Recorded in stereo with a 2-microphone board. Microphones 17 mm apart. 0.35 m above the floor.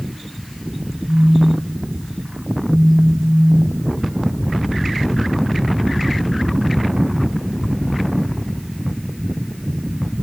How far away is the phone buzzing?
About 0.7 m.